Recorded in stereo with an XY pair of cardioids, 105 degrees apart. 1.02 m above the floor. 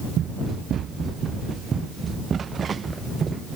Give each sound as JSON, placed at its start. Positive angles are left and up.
{"t": 0.2, "sound": "running footsteps", "azimuth_deg": -65}